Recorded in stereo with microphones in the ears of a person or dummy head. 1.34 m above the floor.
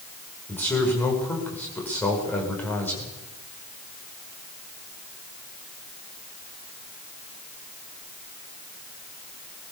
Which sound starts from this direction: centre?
A man speaking, at 0.5 s.